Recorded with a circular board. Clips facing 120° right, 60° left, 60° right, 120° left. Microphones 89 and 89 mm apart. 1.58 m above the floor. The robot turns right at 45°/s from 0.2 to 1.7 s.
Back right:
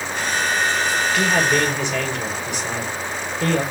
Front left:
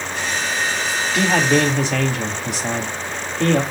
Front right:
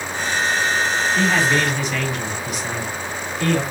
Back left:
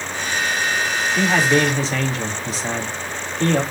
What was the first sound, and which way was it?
A man speaking, 40° left.